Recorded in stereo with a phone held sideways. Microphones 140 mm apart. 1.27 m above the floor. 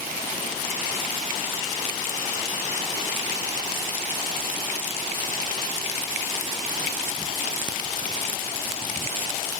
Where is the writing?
No writing in this recording.